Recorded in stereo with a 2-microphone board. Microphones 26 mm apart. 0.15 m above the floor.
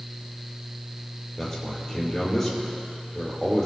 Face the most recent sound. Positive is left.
turn(degrees=15)  # may be behind; listen again after turning